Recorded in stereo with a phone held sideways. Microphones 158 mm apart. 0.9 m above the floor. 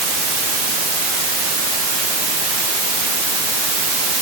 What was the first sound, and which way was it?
Only background noise.